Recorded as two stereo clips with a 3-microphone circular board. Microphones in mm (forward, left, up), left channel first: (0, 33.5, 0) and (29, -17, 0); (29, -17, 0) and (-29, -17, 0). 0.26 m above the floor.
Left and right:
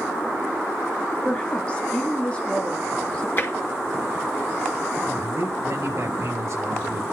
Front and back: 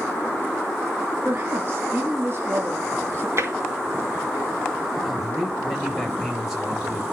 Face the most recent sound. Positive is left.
turn(degrees=-95)